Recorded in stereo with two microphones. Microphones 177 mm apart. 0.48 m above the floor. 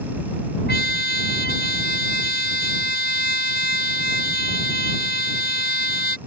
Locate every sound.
0.7 s a trumpet: 70° left (ahead or behind)